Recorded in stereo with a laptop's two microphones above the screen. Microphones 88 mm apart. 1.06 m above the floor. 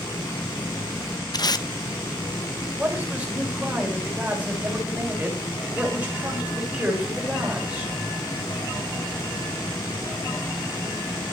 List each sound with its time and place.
0.0 s a fan: 50° left (ahead or behind), 4.5 m
1.3 s tape being pulled: 50° left (ahead or behind), 0.6 m
2.8 s a man speaking: 15° right (ahead or behind), 4 m